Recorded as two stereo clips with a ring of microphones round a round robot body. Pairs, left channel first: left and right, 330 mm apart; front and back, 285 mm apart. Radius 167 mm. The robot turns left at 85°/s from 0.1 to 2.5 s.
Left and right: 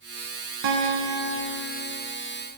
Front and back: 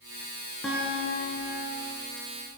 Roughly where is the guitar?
Right.